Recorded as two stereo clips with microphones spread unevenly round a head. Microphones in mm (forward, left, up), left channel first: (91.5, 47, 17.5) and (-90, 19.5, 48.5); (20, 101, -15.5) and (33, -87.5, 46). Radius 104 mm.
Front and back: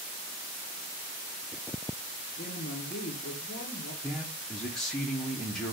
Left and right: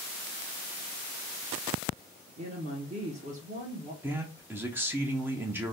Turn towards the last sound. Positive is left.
turn(degrees=-95)